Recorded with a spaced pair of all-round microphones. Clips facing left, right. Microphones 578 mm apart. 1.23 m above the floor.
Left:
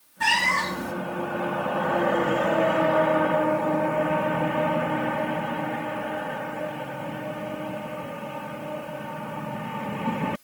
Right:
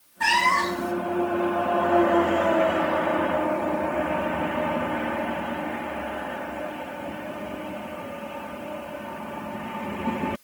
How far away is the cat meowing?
About 0.5 m.